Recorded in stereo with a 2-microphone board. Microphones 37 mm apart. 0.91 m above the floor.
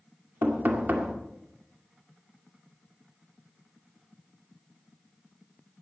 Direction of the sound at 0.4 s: 60° right (ahead or behind).